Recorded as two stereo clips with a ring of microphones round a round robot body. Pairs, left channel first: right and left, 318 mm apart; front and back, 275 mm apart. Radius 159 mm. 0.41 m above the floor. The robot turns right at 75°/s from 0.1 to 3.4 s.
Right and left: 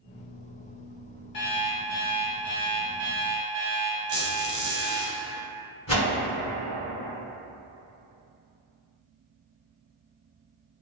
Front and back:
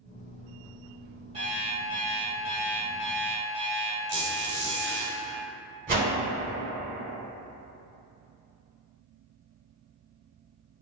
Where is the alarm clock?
110° right, 1.3 m; by 5.1 s 45° left, 1.3 m.